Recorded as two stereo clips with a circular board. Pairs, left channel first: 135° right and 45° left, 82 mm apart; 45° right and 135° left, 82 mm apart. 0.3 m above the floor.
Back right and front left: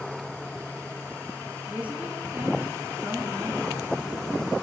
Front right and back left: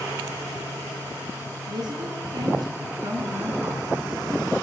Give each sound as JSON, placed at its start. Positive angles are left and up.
{"t": 1.7, "sound": "a woman speaking", "azimuth_deg": 115, "distance_m": 3.5}